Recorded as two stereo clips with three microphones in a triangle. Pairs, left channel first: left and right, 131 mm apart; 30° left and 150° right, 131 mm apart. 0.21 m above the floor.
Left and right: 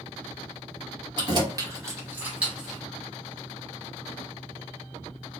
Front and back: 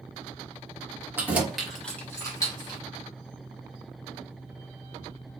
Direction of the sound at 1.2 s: 90° right.